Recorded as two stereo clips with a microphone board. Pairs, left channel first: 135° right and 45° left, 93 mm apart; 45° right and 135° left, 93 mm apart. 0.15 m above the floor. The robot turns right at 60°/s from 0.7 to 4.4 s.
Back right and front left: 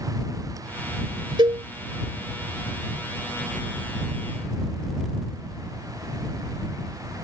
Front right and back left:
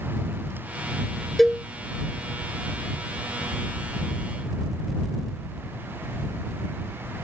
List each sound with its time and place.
1.4 s a cowbell: 45° left; by 1.6 s 60° left